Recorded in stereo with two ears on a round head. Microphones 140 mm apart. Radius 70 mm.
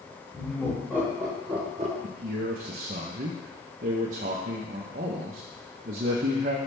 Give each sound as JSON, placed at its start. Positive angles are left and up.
{"t": 0.3, "sound": "laughter", "side_deg": 25, "distance_m": 2.5}
{"t": 2.0, "sound": "a man speaking", "side_deg": -55, "distance_m": 0.8}